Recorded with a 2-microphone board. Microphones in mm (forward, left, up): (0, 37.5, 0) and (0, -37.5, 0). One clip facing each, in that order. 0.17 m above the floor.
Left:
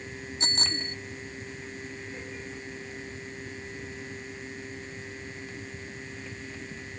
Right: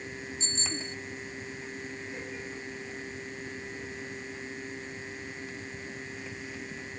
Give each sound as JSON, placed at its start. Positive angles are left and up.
{"t": 0.4, "sound": "a bicycle bell", "side_deg": 65}